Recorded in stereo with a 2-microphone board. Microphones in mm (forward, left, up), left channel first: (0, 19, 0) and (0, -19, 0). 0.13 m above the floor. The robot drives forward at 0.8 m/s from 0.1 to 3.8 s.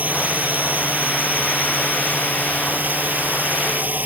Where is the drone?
45° right (ahead or behind).